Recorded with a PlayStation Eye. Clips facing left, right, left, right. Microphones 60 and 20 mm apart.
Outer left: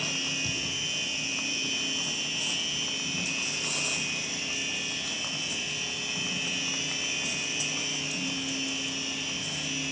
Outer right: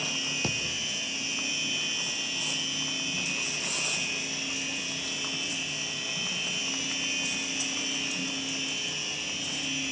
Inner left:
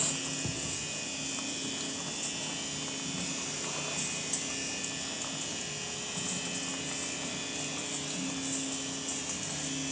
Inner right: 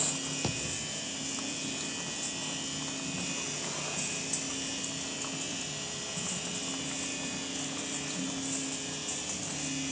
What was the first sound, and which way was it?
A thud, 55° right (ahead or behind).